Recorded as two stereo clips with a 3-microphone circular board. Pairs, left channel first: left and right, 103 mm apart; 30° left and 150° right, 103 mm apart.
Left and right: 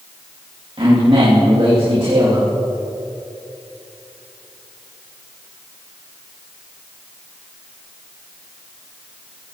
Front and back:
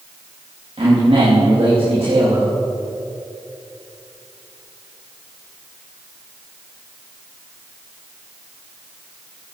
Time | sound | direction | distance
0.8 | a man speaking | 125° right | 3.5 m